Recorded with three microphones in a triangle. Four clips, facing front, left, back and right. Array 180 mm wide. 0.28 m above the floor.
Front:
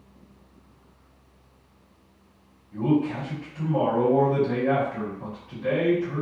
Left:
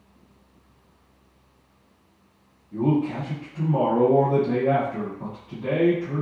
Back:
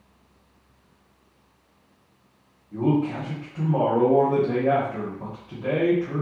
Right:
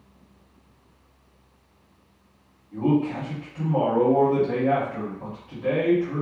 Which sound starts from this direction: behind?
A man speaking, at 2.7 s.